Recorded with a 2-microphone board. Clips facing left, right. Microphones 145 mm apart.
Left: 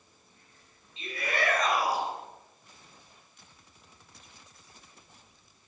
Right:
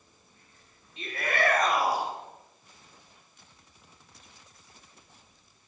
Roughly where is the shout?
Right.